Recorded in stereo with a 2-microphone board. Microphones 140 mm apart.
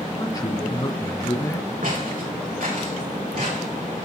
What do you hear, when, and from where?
0.2 s a man speaking: 25° left (ahead or behind), 1.5 m
1.8 s footsteps: 75° right (ahead or behind), 4.5 m; by 4.1 s 80° right, 7.5 m